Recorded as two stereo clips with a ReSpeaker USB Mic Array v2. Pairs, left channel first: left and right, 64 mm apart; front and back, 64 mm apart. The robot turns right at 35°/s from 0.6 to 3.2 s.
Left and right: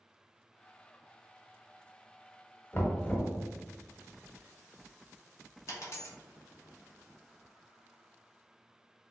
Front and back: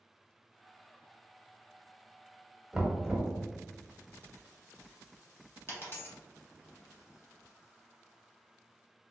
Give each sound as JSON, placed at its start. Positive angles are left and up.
{"t": 2.7, "sound": "knocking", "azimuth_deg": 105, "distance_m": 0.7}
{"t": 5.7, "sound": "a dropped coin", "azimuth_deg": 50, "distance_m": 1.1}